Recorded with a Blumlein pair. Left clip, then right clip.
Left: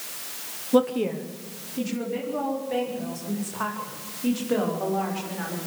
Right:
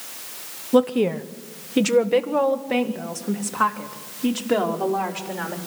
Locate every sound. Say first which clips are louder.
0.7 s a woman speaking: right 3 dB; 10° right, 0.8 m; by 5.6 s 75° right, 4 m